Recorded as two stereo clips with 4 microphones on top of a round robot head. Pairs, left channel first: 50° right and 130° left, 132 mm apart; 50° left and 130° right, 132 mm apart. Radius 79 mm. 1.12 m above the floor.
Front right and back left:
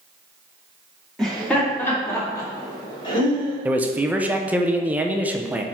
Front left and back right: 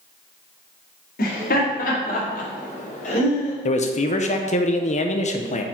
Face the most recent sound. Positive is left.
turn(degrees=55)